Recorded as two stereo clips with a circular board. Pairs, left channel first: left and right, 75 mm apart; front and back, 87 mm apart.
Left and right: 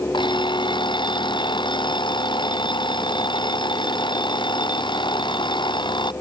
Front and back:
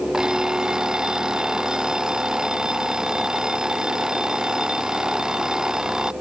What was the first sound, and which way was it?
An alarm clock, 95° left.